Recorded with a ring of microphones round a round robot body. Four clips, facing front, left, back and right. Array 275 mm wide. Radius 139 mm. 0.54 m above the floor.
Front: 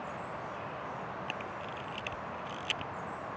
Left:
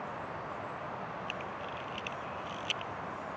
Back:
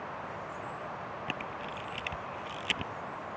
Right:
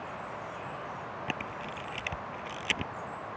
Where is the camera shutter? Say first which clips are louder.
Right 2 dB, back 1 dB; 115° right.